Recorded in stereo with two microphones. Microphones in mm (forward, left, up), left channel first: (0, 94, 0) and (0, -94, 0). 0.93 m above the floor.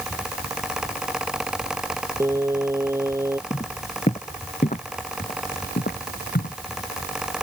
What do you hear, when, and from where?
2.2 s singing: 15° right (ahead or behind)
3.5 s footsteps: 30° left (ahead or behind); by 6.5 s 60° left (ahead or behind)